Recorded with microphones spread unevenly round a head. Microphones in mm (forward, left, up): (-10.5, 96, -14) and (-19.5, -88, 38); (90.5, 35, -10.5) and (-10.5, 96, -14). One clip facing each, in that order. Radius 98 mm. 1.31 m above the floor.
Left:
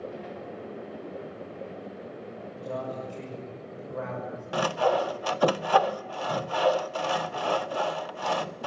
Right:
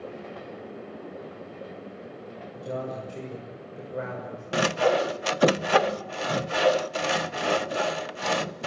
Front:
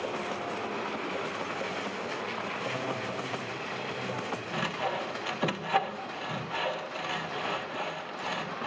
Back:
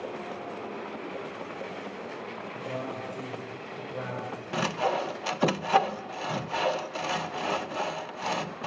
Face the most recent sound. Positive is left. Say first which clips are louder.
# right 2 dB, back 6 dB
turn(degrees=-145)